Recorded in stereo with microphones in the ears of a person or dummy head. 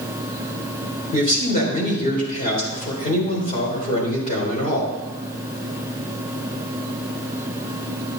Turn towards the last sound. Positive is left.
turn(degrees=40)  # may be behind; listen again after turning